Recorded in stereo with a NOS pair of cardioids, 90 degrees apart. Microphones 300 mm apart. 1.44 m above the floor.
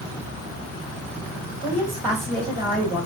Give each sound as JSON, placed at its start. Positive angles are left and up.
{"t": 1.6, "sound": "a woman speaking", "azimuth_deg": -20, "distance_m": 2.5}